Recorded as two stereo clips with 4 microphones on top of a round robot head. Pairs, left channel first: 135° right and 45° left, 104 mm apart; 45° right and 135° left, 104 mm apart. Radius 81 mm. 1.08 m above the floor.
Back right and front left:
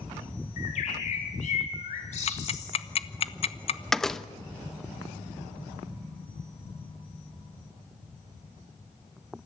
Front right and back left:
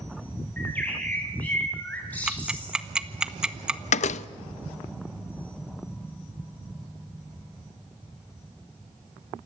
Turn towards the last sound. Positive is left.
turn(degrees=-50)